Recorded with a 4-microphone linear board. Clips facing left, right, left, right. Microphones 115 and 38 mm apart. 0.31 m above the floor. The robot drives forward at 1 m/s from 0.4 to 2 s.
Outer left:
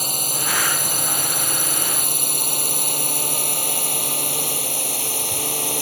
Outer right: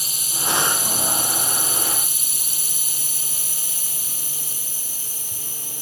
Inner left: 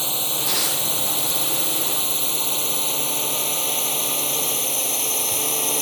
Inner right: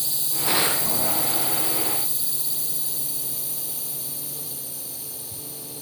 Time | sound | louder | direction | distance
0.0 | a drone | outer left 4 dB, inner left 5 dB | 55° left (ahead or behind) | ?